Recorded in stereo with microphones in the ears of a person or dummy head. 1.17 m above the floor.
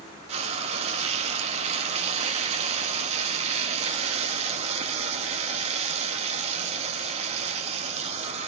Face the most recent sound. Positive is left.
turn(degrees=-35)  # may be behind; listen again after turning